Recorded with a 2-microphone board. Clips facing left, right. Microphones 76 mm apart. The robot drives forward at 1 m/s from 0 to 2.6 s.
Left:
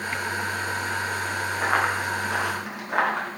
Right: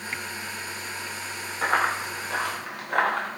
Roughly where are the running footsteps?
Centre.